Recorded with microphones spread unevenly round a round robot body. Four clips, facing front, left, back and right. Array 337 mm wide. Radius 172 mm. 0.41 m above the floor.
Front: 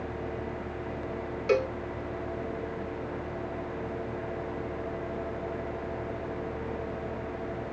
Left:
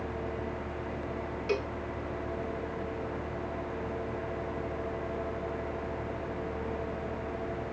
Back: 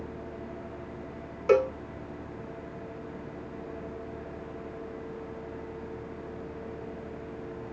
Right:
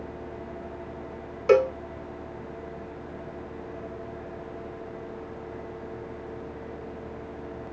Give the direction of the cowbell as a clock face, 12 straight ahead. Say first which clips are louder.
Right 14 dB, back 4 dB; 3 o'clock.